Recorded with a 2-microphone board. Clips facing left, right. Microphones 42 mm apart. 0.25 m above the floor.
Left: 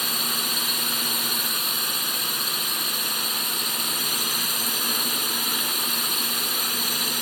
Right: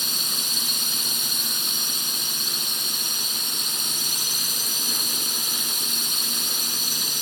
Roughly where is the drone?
Left.